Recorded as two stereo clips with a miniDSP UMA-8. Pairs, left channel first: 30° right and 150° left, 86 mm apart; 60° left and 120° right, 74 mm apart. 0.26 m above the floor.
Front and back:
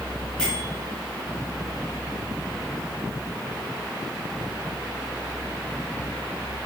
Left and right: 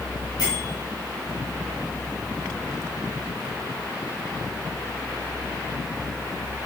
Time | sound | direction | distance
0.4 | a bell | 55° left | 3.5 m